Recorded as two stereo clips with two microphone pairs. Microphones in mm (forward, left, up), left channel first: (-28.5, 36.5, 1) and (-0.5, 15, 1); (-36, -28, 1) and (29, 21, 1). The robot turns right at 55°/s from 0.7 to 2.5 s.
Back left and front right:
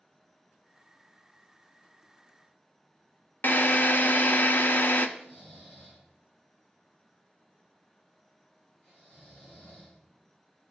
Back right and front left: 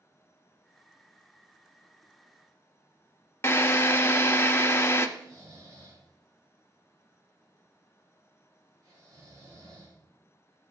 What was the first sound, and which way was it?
A drill, 160° left.